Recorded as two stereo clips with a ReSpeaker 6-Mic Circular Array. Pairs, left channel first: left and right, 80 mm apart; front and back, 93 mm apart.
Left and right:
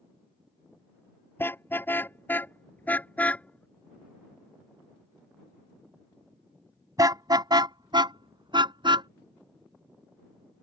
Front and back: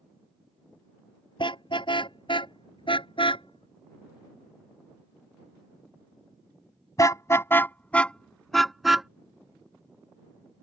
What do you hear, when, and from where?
1.4 s a car horn: 30° left; by 9.1 s 95° right